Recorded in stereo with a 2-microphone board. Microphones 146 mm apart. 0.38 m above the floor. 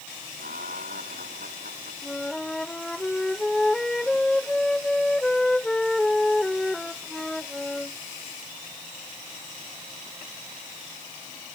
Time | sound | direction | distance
0.4 | laughter | 85° right | ?
2.0 | a flute | 5° left (ahead or behind) | ?